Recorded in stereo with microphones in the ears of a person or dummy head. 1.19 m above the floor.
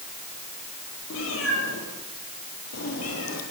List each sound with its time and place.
1.1 s a cat meowing: 70° left (ahead or behind), 10 m; by 3.4 s 85° left, 8.5 m